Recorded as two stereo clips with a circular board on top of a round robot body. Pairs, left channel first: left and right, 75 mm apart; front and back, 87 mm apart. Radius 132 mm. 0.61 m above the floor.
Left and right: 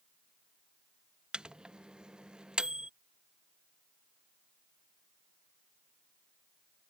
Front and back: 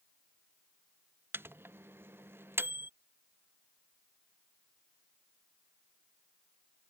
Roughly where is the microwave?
Behind right.